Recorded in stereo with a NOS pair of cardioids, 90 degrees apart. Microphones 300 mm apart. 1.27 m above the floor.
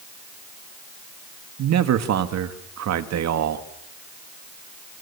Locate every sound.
1.6 s a man speaking: 60° right, 2.5 m